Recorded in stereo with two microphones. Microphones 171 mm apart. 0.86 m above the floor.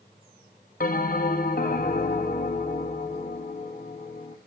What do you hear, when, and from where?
0.8 s a bell: 55° left (ahead or behind), 1.5 m